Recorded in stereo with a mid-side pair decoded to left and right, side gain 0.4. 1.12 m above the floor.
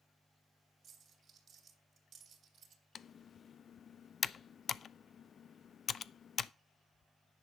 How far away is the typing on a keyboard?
About 0.5 m.